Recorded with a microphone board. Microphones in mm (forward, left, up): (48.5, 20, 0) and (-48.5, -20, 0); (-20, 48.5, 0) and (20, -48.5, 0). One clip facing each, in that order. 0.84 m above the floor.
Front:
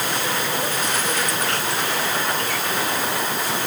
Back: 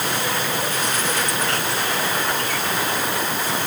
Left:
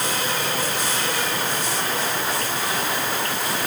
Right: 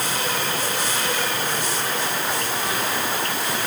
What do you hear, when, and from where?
Only background noise.